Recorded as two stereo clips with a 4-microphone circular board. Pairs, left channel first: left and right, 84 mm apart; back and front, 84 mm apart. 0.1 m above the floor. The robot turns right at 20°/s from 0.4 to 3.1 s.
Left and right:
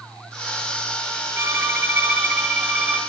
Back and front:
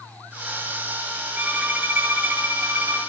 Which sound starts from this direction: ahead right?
A violin, at 1.4 s.